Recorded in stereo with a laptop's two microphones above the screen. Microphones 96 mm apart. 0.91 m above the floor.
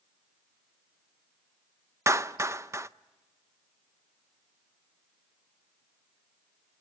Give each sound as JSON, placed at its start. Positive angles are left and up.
{"t": 2.1, "sound": "a clap", "side_deg": -30, "distance_m": 0.5}